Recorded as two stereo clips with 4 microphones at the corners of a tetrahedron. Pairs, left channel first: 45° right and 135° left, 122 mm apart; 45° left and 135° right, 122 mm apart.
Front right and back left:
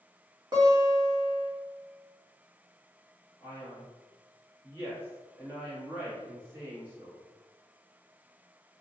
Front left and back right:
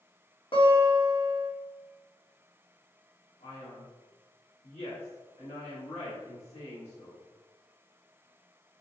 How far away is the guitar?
About 1.2 m.